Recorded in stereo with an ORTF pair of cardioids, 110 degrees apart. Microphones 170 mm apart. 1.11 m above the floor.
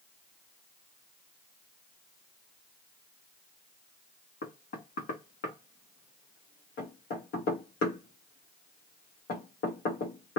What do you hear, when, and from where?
4.4 s knocking: 65° left, 1.3 m